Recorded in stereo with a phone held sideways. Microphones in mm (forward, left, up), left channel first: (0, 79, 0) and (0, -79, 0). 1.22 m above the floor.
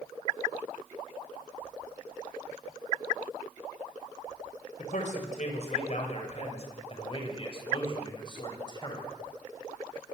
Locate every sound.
4.8 s a man speaking: 55° left (ahead or behind), 6 m; by 9.1 s 30° left (ahead or behind), 7.5 m